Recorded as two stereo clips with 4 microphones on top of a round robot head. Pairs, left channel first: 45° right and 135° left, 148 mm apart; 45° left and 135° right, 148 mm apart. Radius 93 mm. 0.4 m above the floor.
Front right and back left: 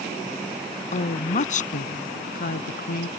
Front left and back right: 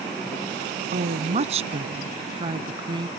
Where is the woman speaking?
90° right; by 3.1 s 70° right.